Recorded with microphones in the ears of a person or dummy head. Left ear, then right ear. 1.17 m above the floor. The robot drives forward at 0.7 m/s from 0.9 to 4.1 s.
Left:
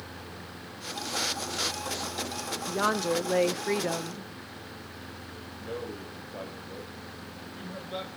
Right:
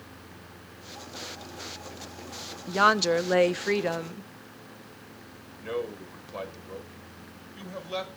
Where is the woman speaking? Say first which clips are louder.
Right 6 dB; 45° right (ahead or behind), 0.6 m; by 4.3 s 25° right (ahead or behind), 1.0 m.